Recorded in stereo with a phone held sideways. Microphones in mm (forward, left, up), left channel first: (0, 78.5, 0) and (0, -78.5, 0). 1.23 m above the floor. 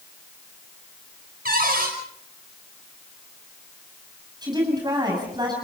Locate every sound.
1.4 s a cupboard door: 70° right (ahead or behind), 5.5 m
4.4 s a woman speaking: 25° right (ahead or behind), 7 m